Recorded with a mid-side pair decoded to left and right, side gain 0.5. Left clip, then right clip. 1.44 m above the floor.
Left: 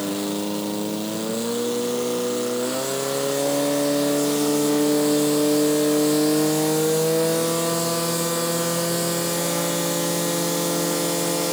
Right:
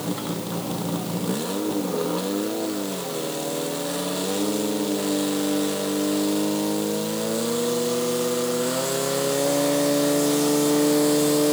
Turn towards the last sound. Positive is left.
No sound to turn to.